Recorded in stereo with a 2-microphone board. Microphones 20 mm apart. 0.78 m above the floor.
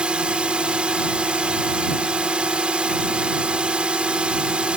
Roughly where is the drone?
Right.